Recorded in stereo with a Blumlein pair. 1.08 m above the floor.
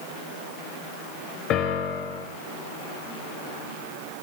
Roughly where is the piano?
Ahead left.